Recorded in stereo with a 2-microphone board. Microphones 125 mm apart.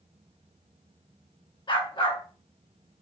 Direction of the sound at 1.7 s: 40° left (ahead or behind).